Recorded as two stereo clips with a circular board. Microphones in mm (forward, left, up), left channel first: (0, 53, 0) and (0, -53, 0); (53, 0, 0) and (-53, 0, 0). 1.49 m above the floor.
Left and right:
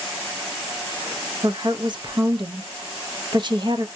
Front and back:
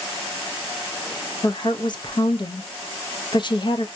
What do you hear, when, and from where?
1.4 s a woman speaking: 45° right, 0.7 m